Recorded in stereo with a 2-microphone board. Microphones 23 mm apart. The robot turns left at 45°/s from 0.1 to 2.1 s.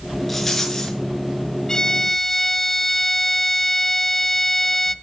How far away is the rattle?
About 5.5 m.